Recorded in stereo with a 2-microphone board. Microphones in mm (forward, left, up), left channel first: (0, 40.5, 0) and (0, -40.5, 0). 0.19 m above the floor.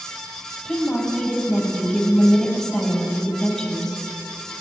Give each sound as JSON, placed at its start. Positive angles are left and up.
{"t": 0.7, "sound": "a woman speaking", "side_deg": 5, "distance_m": 4.5}